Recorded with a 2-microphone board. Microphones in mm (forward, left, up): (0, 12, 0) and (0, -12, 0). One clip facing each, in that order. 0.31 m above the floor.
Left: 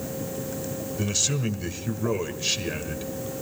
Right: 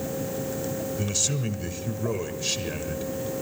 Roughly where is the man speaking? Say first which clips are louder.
Left 4 dB; centre.